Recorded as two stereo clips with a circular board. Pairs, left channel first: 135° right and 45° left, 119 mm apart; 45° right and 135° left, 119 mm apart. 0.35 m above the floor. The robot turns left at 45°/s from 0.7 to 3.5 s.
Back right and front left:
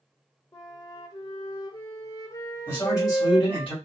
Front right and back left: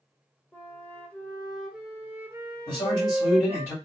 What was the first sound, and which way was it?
A flute, 100° right.